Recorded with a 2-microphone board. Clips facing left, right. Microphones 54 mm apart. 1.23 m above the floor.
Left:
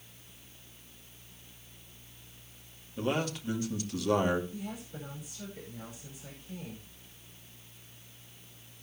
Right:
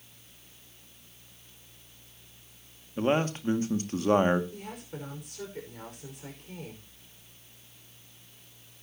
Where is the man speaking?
35° right (ahead or behind), 2 m.